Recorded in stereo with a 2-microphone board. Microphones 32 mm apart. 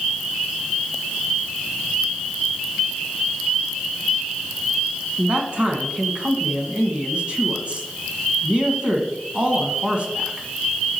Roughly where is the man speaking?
Right.